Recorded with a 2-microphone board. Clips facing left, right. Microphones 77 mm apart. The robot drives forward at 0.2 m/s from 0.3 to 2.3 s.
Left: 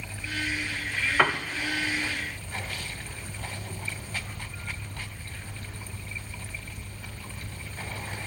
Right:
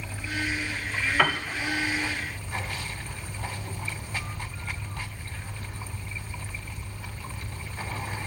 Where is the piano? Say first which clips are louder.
Left 1 dB; 15° left (ahead or behind), 1.4 m.